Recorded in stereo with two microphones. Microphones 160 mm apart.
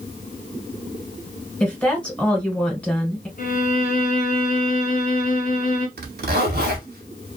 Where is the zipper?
85° right, 0.9 m.